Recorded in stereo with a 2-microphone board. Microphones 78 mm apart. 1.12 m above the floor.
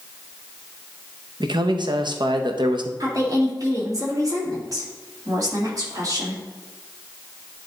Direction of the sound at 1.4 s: 75° right (ahead or behind).